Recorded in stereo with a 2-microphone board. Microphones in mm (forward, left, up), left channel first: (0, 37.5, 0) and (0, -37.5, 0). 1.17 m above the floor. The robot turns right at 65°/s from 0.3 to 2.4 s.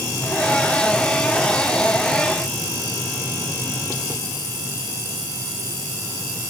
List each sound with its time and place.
Only background noise.